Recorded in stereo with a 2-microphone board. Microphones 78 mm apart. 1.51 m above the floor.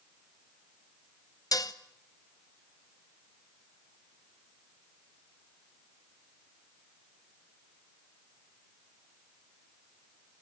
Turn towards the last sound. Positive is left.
turn(degrees=50)  # may be behind; listen again after turning